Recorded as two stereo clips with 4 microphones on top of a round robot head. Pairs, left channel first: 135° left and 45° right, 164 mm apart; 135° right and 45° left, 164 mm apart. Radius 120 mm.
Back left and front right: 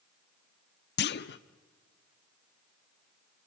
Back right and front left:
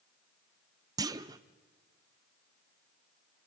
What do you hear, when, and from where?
1.0 s a clunk: 115° left, 0.6 m